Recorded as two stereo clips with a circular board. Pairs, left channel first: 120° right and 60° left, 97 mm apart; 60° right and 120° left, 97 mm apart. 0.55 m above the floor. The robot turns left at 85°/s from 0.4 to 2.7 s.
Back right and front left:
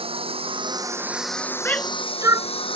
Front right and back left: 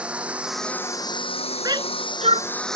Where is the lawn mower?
40° left; by 2.8 s 145° right.